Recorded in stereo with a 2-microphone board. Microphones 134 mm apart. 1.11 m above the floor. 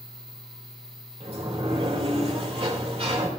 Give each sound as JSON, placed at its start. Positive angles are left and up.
{"t": 1.2, "sound": "a sliding door", "side_deg": -50, "distance_m": 2.5}